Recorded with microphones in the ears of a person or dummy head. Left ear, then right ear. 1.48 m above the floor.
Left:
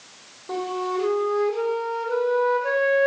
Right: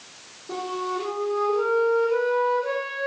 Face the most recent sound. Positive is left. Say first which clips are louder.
# left 2 dB
turn(degrees=65)  # may be behind; listen again after turning